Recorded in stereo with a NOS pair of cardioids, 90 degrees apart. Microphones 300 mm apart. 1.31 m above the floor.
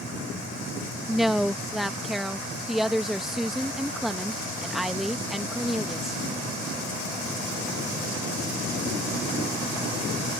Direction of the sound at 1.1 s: Straight ahead.